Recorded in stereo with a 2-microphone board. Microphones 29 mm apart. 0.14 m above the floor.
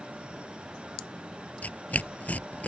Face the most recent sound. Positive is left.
turn(degrees=65)  # may be behind; listen again after turning